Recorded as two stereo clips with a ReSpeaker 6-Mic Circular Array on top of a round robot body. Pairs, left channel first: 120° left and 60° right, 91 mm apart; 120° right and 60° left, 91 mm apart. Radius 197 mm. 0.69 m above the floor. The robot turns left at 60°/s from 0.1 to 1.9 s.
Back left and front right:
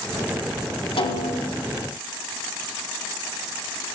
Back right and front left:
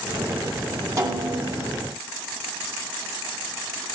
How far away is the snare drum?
About 2.5 m.